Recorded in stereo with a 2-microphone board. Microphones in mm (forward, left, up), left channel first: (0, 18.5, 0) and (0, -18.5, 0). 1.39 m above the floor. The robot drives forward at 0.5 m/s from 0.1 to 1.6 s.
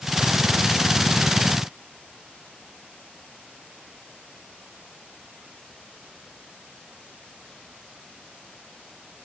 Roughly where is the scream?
No scream in this recording.